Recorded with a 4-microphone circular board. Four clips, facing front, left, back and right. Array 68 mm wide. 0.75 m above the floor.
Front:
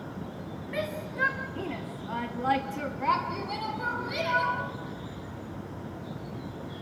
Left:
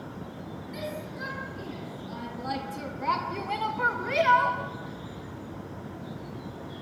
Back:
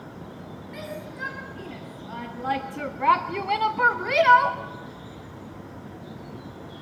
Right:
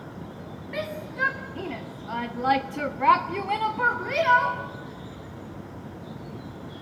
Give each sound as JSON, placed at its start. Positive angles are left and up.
{"t": 0.7, "sound": "a shout", "azimuth_deg": -55, "distance_m": 2.5}